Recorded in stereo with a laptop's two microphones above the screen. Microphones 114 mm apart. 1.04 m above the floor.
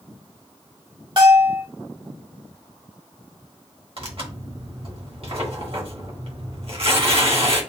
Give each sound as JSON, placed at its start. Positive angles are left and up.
{"t": 1.2, "sound": "a bell", "side_deg": -45, "distance_m": 1.1}
{"t": 4.0, "sound": "tearing paper", "side_deg": -55, "distance_m": 1.2}